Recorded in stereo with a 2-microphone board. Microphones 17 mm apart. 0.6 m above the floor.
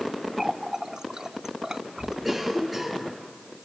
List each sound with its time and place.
0.4 s a running tap: 40° right (ahead or behind), 0.8 m
2.2 s a cough: centre (ahead or behind), 9 m